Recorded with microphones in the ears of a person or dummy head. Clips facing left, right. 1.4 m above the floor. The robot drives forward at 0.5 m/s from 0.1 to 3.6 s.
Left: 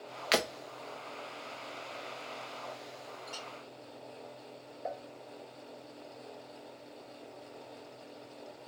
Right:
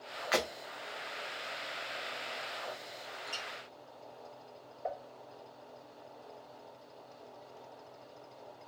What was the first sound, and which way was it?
Breaking glass, 20° left (ahead or behind).